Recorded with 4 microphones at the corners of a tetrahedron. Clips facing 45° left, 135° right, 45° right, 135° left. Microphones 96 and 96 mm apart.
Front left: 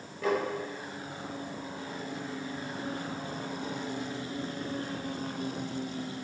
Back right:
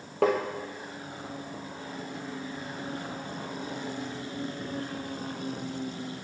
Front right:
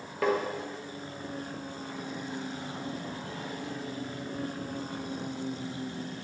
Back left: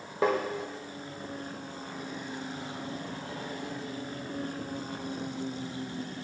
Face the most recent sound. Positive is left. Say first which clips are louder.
# back right 4 dB, back left 1 dB
turn(degrees=-155)